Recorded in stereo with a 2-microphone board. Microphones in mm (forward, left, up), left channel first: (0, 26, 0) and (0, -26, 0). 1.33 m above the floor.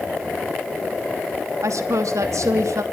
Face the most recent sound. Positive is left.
turn(degrees=-80)